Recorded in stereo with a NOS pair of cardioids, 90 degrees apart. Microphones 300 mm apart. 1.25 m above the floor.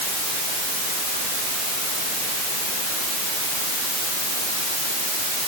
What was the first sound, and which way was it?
Only background noise.